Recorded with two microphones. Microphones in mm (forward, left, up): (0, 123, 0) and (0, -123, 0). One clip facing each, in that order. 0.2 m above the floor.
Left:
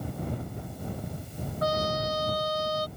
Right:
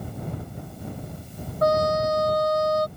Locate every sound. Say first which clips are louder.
1.6 s a trumpet: right 8 dB; 50° right (ahead or behind)